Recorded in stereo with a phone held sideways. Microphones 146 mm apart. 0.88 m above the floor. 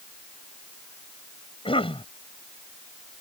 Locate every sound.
1.6 s a cough: 35° left (ahead or behind)